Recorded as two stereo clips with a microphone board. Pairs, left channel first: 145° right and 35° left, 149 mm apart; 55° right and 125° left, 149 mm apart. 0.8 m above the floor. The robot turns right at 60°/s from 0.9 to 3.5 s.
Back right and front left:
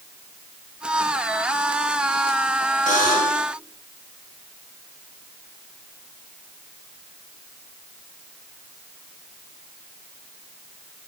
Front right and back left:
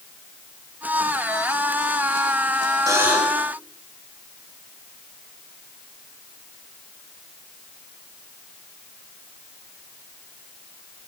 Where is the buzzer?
170° right, 2 m; by 3.5 s 135° right, 2 m.